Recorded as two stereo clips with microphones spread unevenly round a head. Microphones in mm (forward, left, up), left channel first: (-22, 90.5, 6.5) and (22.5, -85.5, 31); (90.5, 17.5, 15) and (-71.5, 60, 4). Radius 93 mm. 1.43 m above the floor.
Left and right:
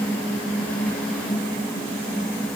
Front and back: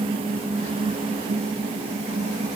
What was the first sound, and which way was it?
Only background noise.